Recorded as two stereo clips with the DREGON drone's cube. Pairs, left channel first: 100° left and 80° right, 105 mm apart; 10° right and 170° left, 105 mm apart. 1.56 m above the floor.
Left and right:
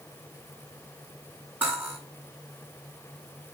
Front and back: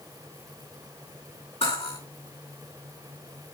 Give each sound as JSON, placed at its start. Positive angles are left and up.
{"t": 1.6, "sound": "cutlery clinking", "azimuth_deg": -5, "distance_m": 7.5}